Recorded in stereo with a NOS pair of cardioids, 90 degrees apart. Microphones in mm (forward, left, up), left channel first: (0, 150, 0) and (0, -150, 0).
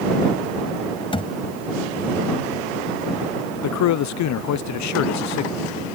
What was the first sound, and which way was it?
A thud, 20° left.